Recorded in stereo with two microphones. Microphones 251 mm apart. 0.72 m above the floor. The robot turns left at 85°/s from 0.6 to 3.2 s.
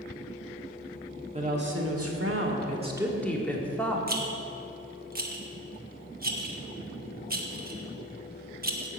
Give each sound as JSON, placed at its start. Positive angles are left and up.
{"t": 1.3, "sound": "a woman speaking", "azimuth_deg": -30, "distance_m": 1.6}
{"t": 4.1, "sound": "a rattle", "side_deg": -35, "distance_m": 1.1}